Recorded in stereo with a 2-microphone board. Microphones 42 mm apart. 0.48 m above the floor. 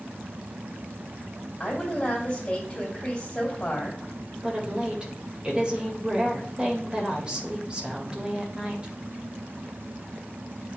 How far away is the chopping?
I don't hear chopping.